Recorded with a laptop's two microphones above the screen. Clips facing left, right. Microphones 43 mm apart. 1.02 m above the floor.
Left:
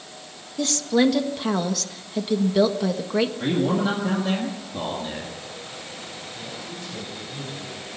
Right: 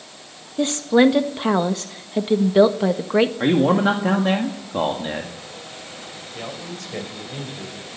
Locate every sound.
0.6 s a woman speaking: 25° right (ahead or behind), 1.5 m
3.4 s a man speaking: 45° right (ahead or behind), 1.7 m
6.3 s a man speaking: 75° right (ahead or behind), 4 m